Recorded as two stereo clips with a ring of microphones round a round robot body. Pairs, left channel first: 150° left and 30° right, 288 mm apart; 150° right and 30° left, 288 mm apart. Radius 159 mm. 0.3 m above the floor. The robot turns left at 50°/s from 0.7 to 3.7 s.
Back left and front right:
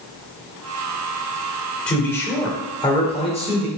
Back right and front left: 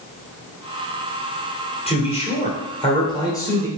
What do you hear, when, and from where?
1.9 s a man speaking: 130° right, 1.5 m; by 3.7 s 140° left, 1.5 m